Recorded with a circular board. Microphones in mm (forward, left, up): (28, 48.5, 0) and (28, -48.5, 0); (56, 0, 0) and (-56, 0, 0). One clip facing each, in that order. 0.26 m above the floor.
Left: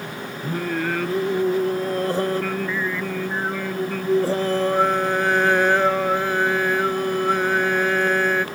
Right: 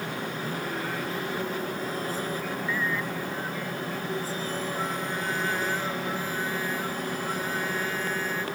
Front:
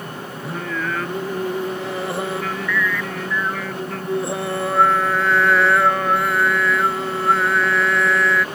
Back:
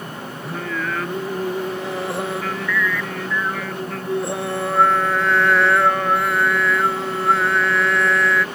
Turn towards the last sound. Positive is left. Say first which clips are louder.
# left 12 dB, even
turn(degrees=90)